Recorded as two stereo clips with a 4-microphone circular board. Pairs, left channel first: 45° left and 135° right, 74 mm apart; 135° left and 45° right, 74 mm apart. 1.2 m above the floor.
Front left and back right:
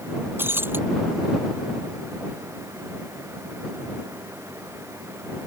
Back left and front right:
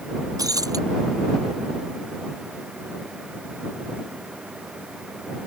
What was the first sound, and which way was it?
Breaking glass, 75° right.